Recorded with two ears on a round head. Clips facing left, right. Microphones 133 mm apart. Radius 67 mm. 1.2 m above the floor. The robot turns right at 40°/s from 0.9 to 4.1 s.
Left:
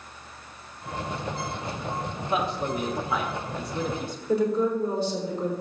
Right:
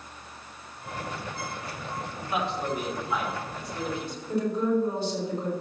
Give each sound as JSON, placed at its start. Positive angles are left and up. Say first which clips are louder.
{"t": 2.2, "sound": "a man speaking", "louder": "left 2 dB", "side_deg": 25, "distance_m": 2.0}
{"t": 4.3, "sound": "a woman speaking", "louder": "left 2 dB", "side_deg": 85, "distance_m": 4.0}